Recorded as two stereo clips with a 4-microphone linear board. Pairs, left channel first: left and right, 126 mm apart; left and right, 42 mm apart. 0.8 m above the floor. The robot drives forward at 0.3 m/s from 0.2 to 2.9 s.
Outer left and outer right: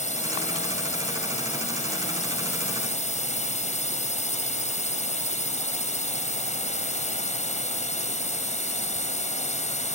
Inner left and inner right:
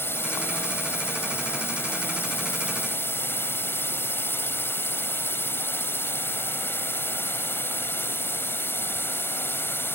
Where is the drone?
70° left (ahead or behind).